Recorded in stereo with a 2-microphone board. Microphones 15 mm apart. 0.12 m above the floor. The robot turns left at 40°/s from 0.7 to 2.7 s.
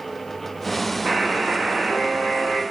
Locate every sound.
1.1 s a buzzer: 75° right, 8 m; by 2.6 s 135° right, 8 m